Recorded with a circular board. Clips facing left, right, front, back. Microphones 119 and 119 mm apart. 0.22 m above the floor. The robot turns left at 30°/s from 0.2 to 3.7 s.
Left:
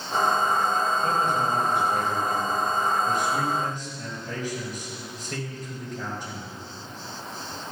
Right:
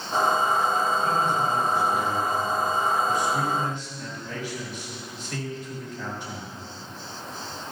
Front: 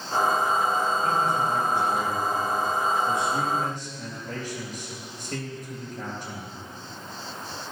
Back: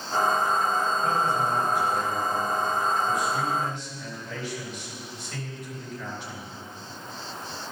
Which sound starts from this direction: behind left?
A man speaking, at 1.0 s.